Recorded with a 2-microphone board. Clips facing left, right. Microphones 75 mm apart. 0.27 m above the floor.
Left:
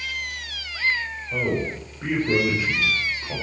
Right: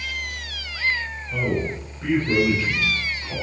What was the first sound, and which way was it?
A man speaking, 15° left (ahead or behind).